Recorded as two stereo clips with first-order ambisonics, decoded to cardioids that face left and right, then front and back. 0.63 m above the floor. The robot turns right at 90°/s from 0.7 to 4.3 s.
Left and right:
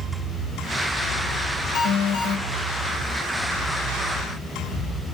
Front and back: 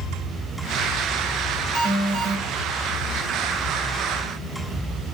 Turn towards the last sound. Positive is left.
turn(degrees=-75)